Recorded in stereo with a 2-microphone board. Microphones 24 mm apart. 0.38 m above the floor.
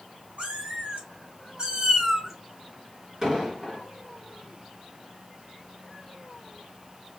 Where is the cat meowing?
75° right (ahead or behind), 1.4 m; by 2.3 s 15° right (ahead or behind), 1.0 m.